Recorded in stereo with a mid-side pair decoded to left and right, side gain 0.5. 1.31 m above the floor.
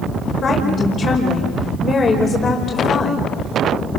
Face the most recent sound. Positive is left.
turn(degrees=45)